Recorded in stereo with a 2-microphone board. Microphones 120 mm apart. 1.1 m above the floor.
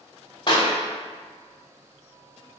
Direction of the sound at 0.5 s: 40° left (ahead or behind).